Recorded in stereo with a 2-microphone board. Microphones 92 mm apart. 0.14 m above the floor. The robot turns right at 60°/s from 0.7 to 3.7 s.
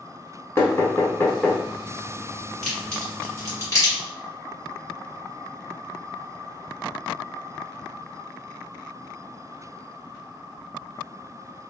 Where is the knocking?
25° left (ahead or behind), 0.8 m; by 1.6 s 10° left (ahead or behind), 0.8 m.